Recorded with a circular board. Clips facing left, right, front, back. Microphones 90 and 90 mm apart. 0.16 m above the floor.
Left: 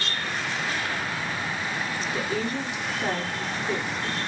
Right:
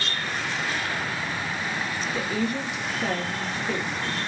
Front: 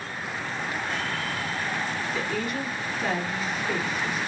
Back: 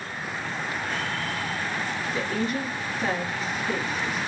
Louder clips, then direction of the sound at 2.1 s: Right 1 dB, back 4 dB; 125° left.